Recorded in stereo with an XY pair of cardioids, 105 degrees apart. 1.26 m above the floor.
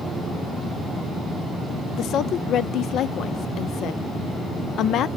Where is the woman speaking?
70° left, 0.5 m.